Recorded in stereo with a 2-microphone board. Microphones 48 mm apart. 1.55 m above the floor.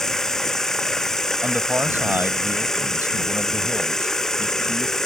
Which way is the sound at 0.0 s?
10° left (ahead or behind).